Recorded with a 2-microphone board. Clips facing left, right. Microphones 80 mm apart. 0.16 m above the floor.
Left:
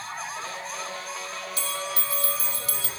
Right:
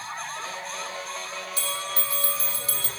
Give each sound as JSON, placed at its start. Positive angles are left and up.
{"t": 1.6, "sound": "a bell", "side_deg": -35, "distance_m": 1.0}